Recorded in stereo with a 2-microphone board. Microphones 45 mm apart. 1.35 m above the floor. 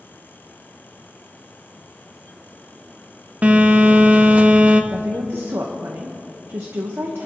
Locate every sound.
3.4 s a phone buzzing: 30° right (ahead or behind), 1.0 m
4.9 s a woman speaking: 70° right (ahead or behind), 1.4 m